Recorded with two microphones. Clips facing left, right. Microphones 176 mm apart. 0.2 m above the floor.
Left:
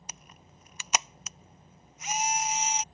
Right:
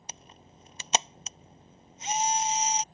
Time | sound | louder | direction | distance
0.1 | a camera shutter | right 4 dB | 30° right (ahead or behind) | ?